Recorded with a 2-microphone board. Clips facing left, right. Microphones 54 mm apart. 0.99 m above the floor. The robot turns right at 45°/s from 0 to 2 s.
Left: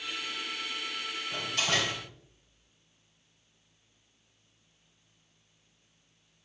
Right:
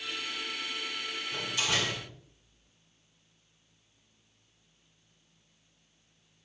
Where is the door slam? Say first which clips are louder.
Left 2 dB; 110° left, 5.5 m; by 2.0 s 140° left, 5.5 m.